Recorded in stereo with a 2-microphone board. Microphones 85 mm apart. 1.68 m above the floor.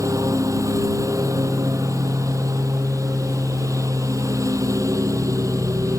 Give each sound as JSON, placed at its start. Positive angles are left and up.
{"t": 0.0, "sound": "a lawn mower", "side_deg": -45}